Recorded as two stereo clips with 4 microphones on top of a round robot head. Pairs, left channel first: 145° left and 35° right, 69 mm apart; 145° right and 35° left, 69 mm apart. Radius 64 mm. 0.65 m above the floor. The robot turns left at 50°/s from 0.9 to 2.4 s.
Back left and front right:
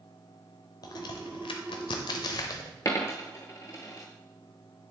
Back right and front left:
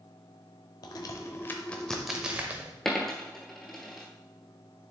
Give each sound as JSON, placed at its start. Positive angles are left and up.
{"t": 0.8, "sound": "a crack", "azimuth_deg": 180, "distance_m": 0.7}
{"t": 2.9, "sound": "a dropped coin", "azimuth_deg": 135, "distance_m": 0.6}